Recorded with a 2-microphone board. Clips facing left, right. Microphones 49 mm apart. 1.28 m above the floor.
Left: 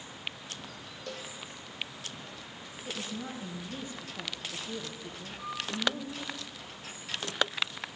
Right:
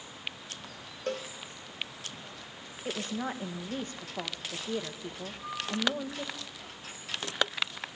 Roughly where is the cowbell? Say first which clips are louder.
Right 8 dB; right.